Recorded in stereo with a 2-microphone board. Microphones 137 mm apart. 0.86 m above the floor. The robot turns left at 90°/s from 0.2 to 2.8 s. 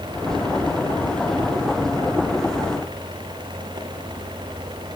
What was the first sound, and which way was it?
Only background noise.